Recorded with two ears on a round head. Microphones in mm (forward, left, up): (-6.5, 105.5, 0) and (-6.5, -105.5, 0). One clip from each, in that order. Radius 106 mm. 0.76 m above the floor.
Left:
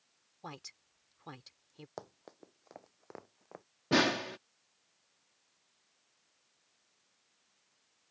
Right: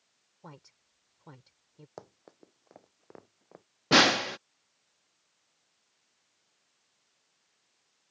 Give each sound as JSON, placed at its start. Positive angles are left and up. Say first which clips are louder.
{"t": 0.4, "sound": "a woman speaking", "louder": "left 5 dB", "side_deg": 65}
{"t": 2.0, "sound": "running footsteps", "louder": "left 1 dB", "side_deg": 15}
{"t": 3.9, "sound": "a snare drum", "louder": "right 8 dB", "side_deg": -40}